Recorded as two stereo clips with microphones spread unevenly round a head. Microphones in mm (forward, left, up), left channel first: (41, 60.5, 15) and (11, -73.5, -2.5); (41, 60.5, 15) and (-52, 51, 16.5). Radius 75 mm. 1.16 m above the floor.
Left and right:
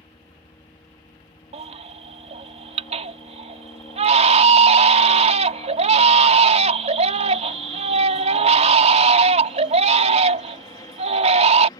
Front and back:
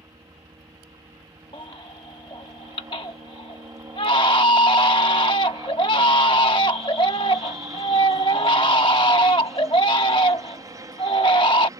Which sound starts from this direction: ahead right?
A baby crying, at 1.5 s.